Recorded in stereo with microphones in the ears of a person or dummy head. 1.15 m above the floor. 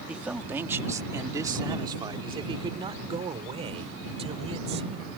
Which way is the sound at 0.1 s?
5° right (ahead or behind).